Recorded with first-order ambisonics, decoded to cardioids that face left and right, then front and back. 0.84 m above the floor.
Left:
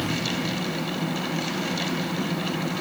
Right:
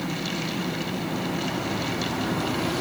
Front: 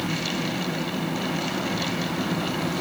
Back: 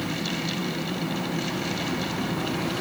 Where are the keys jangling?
I don't hear keys jangling.